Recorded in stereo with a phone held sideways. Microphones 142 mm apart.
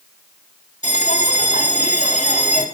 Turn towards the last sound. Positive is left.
turn(degrees=55)  # may be behind; listen again after turning